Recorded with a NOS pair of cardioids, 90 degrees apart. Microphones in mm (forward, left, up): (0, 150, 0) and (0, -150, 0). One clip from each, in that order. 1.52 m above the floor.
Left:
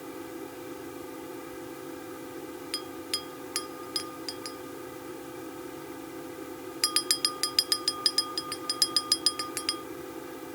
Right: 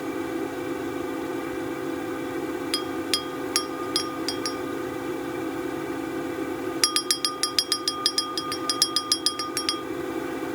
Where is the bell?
55° right.